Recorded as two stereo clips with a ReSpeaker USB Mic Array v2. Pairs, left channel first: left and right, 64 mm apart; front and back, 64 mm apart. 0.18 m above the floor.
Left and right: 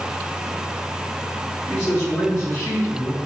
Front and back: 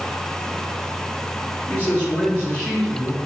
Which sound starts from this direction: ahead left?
A man speaking, at 1.7 s.